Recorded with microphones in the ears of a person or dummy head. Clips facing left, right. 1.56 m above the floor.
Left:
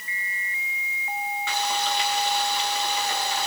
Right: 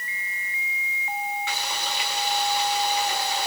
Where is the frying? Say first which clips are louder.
Left 5 dB; 70° left (ahead or behind), 4 m.